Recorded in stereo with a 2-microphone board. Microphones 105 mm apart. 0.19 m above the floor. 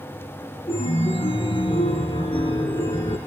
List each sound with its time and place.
0.7 s a chime: 65° left (ahead or behind), 2.5 m